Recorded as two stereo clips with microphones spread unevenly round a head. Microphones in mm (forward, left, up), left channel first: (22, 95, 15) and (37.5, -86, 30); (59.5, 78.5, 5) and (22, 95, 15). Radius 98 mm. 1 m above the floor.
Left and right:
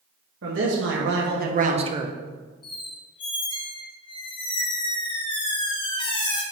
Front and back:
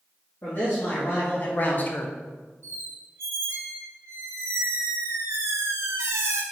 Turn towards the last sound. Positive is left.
turn(degrees=160)